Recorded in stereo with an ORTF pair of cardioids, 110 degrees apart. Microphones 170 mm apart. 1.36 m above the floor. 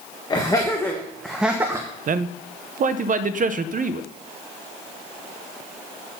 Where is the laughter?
25° left, 1.8 m; by 1.9 s 20° right, 1.3 m.